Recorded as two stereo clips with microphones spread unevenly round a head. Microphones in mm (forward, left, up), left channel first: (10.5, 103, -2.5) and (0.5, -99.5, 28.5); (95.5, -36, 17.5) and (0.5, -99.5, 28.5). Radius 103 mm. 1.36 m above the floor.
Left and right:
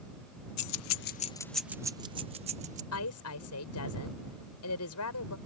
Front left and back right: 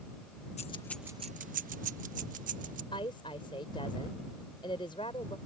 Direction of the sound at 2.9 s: 105° left.